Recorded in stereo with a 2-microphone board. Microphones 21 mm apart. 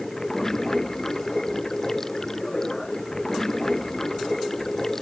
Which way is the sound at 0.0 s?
25° left (ahead or behind).